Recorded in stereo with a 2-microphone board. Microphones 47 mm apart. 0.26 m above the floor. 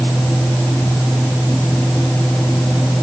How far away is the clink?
No clink in this recording.